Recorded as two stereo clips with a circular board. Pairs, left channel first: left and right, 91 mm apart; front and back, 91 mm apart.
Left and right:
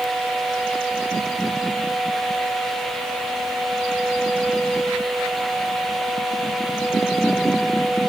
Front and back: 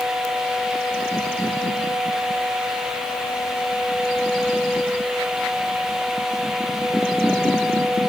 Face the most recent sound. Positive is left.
No sound to turn to.